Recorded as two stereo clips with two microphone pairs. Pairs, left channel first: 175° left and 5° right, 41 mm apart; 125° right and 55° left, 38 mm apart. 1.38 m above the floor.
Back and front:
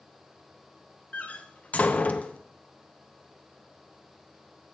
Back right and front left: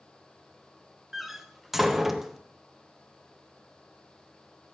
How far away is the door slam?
About 0.5 m.